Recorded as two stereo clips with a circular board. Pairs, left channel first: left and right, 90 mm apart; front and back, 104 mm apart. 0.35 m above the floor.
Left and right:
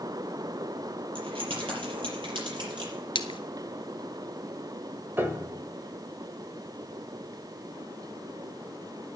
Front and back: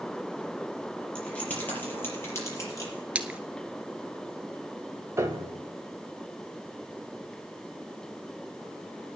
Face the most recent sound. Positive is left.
turn(degrees=-140)